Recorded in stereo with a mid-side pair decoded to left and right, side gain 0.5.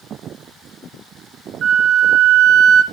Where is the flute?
65° right, 2 m.